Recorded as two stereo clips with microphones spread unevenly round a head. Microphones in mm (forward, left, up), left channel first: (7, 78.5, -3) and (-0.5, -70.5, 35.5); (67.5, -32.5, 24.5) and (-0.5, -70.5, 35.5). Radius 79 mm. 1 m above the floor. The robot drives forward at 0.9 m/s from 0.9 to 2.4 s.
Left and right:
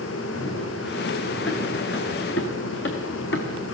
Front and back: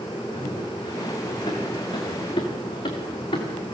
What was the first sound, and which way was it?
Running footsteps, 75° left.